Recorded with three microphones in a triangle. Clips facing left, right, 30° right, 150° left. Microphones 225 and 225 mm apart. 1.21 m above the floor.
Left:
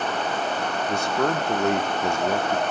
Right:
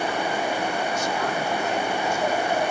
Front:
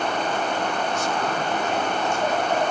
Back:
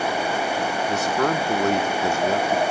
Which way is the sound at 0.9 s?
125° left.